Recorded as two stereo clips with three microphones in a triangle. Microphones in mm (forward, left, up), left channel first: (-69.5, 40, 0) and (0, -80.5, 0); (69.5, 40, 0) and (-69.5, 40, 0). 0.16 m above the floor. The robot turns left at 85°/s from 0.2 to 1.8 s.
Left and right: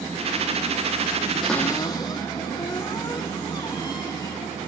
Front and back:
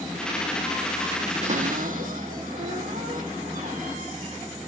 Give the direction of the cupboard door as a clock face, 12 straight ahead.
5 o'clock.